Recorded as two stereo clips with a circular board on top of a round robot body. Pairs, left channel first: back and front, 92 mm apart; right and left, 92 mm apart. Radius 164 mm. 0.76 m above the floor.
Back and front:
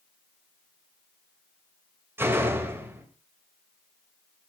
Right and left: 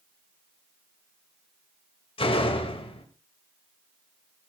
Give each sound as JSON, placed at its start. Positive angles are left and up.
{"t": 2.2, "sound": "a door slam", "azimuth_deg": -65, "distance_m": 3.0}